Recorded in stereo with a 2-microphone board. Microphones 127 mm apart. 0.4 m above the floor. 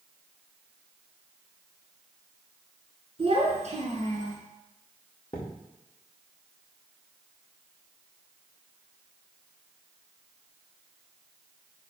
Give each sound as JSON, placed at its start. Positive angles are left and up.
{"t": 3.2, "sound": "a child speaking", "side_deg": -45, "distance_m": 2.5}
{"t": 5.3, "sound": "a thud", "side_deg": 30, "distance_m": 4.0}